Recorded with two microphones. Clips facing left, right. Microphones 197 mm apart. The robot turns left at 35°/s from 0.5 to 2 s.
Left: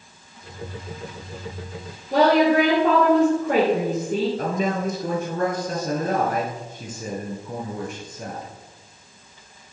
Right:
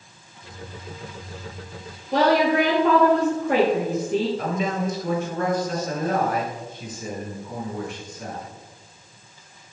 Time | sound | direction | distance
2.1 | a woman speaking | 50° left (ahead or behind) | 3 m
4.4 | a man speaking | 45° left (ahead or behind) | 2 m